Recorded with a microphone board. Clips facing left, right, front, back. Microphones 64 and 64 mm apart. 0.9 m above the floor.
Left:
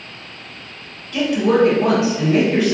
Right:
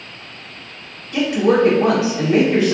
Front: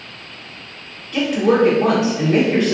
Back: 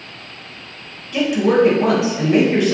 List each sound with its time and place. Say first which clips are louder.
1.1 s a woman speaking: right 1 dB, back 1 dB; 100° right, 0.8 m